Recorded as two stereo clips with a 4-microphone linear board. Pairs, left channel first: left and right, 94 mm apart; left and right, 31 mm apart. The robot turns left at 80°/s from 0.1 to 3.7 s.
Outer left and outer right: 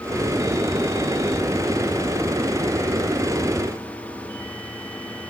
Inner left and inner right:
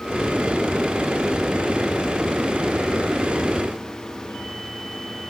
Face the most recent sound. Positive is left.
No sound to turn to.